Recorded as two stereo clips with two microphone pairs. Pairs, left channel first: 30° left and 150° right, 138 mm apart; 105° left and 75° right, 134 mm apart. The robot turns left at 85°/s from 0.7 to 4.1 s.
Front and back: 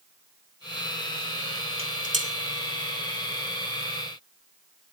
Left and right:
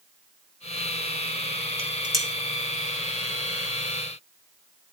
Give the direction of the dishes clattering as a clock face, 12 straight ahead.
4 o'clock.